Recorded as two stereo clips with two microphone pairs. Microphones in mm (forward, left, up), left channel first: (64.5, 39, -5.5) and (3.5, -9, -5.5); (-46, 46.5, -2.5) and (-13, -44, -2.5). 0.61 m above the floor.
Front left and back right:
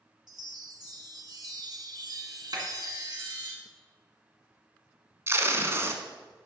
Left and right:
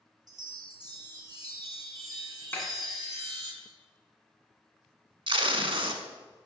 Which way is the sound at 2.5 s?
175° right.